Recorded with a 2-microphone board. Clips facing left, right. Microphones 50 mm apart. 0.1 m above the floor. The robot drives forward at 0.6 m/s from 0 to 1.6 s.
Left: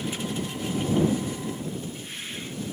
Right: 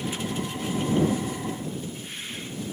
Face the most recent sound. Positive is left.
No sound to turn to.